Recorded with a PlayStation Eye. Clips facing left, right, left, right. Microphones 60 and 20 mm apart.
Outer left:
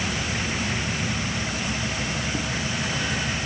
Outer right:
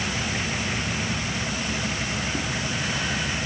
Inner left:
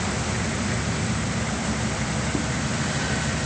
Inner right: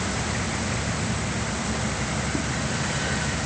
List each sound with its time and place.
Only background noise.